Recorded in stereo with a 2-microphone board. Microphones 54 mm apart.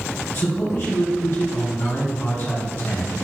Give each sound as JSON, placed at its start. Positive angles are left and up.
{"t": 0.3, "sound": "a man speaking", "side_deg": 50, "distance_m": 1.7}